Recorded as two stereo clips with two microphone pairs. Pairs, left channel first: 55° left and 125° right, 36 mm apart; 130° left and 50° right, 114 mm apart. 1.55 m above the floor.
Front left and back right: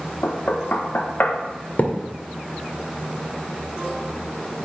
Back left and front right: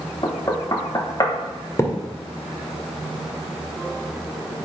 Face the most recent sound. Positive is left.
turn(degrees=70)